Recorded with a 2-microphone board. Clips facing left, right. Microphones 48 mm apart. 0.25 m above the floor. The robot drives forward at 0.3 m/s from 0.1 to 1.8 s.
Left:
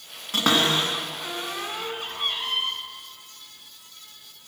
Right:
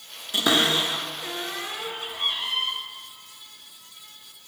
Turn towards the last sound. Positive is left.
turn(degrees=45)  # may be behind; listen again after turning